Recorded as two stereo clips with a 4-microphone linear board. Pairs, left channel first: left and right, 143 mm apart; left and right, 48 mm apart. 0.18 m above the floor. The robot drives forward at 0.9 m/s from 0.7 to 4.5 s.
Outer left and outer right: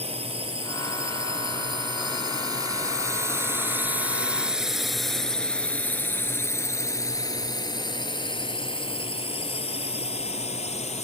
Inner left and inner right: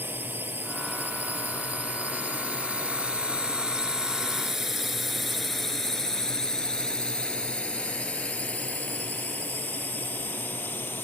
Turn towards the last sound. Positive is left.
turn(degrees=45)  # may be behind; listen again after turning